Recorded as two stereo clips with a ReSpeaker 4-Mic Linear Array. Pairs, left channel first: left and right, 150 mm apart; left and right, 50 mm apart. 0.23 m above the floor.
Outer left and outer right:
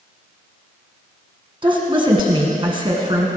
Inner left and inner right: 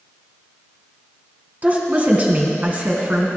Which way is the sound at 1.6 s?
35° right (ahead or behind).